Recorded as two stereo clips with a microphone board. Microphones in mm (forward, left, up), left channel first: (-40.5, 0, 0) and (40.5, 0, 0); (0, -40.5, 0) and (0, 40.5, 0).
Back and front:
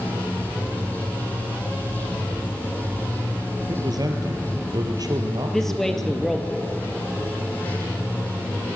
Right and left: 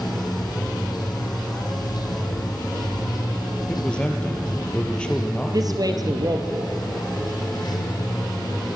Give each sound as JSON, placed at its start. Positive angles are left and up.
{"t": 0.0, "sound": "running water", "azimuth_deg": -115, "distance_m": 4.0}
{"t": 3.7, "sound": "a man speaking", "azimuth_deg": -15, "distance_m": 3.0}
{"t": 5.5, "sound": "a man speaking", "azimuth_deg": 95, "distance_m": 2.5}